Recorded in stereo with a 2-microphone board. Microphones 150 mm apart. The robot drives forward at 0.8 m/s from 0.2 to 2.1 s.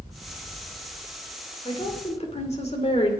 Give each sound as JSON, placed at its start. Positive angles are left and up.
{"t": 1.6, "sound": "a woman speaking", "side_deg": 40, "distance_m": 2.5}